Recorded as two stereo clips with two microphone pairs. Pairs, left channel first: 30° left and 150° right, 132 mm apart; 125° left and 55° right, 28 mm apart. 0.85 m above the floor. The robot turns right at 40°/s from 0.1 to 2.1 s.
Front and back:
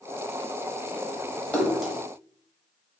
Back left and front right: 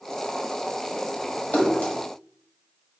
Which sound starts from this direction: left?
A splash, at 1.5 s.